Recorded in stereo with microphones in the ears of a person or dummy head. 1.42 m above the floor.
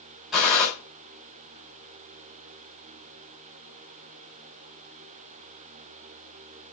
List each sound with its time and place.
0.3 s a gunshot: centre (ahead or behind), 4.5 m